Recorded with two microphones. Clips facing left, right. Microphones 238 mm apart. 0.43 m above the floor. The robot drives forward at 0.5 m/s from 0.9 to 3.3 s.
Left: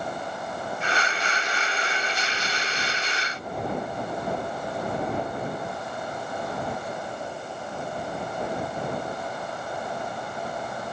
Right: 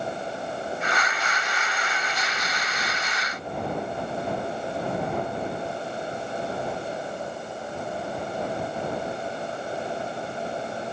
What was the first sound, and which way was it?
Only background noise.